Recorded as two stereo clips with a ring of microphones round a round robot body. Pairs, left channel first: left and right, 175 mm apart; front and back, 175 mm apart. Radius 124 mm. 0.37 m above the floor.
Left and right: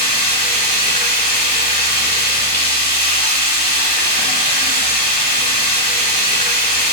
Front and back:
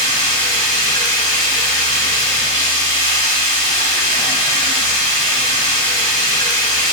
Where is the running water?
60° right, 6 m.